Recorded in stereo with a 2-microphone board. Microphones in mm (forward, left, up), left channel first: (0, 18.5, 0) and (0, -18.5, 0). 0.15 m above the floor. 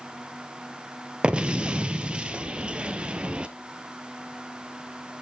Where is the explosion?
25° right (ahead or behind), 0.6 m.